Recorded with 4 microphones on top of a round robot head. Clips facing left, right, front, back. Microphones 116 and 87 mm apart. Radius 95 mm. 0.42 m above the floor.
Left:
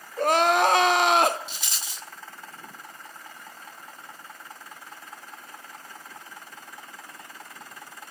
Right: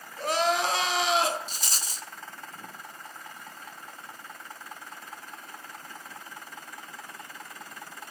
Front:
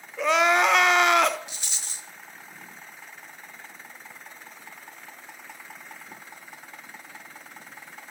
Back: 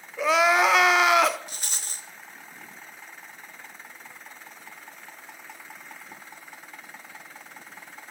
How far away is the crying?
About 0.7 m.